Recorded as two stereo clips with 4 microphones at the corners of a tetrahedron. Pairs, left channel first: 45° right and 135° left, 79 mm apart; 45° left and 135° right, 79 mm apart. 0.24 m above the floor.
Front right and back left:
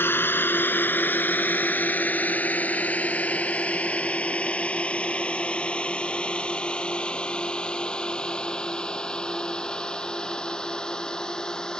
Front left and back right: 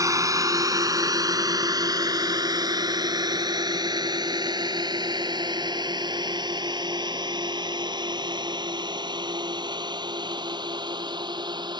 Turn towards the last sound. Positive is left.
turn(degrees=-125)